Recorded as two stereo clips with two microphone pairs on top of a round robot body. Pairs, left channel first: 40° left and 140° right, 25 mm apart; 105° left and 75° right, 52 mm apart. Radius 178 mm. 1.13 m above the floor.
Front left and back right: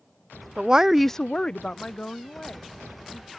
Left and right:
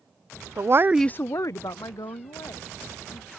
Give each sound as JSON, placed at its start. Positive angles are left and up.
{"t": 0.6, "sound": "a woman speaking", "azimuth_deg": -85}